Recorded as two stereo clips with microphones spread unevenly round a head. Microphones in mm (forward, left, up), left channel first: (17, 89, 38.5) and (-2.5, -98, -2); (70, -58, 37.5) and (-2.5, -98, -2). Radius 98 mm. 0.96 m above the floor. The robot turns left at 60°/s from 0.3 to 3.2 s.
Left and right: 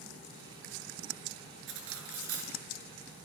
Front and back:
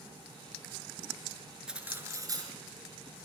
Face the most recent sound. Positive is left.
turn(degrees=-160)